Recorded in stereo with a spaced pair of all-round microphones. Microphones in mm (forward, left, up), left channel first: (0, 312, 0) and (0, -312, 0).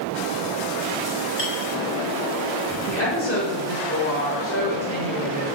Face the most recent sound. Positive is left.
turn(degrees=20)  # may be behind; listen again after turning